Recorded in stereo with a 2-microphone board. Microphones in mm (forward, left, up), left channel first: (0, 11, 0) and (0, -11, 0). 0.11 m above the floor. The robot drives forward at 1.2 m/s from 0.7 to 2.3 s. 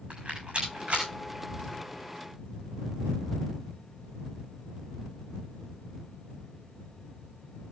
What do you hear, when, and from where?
0.1 s a rattle: 65° right (ahead or behind), 7 m; by 1.1 s 60° right (ahead or behind), 7 m